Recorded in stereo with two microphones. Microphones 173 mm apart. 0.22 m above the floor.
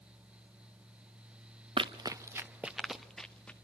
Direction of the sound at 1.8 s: 30° right (ahead or behind).